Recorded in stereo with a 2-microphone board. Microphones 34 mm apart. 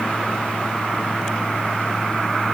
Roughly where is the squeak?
No squeak in this recording.